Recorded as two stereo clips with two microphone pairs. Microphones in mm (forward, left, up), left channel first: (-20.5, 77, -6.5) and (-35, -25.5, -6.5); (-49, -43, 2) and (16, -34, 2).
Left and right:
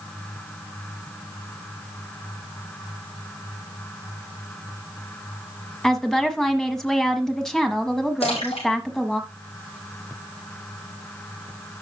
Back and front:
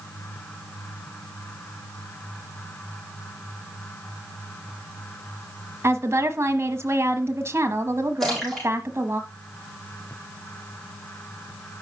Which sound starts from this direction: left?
A splash, at 8.2 s.